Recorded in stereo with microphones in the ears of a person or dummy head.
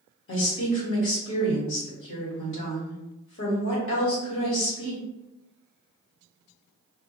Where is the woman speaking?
60° left (ahead or behind), 1.3 m.